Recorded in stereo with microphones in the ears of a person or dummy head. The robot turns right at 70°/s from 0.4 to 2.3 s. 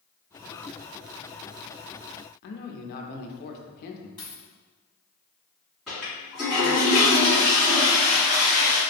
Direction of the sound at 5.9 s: Centre (ahead or behind).